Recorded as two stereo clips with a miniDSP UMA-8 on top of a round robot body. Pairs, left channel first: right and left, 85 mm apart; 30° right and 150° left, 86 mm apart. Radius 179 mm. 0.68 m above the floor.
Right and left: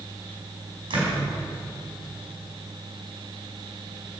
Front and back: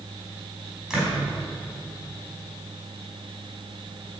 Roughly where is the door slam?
Ahead left.